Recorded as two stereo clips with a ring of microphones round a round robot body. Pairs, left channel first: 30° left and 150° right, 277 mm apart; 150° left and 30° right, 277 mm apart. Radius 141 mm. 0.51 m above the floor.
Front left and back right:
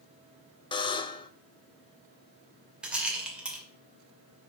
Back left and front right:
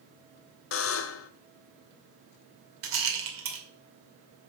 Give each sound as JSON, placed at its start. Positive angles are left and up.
{"t": 0.7, "sound": "a buzzer", "azimuth_deg": 105, "distance_m": 0.7}
{"t": 2.8, "sound": "a rattle", "azimuth_deg": -65, "distance_m": 2.5}